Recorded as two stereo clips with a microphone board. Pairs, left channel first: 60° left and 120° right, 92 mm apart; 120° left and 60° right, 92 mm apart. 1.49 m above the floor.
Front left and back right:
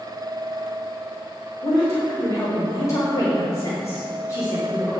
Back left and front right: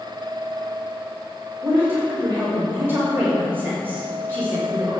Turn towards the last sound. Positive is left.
turn(degrees=5)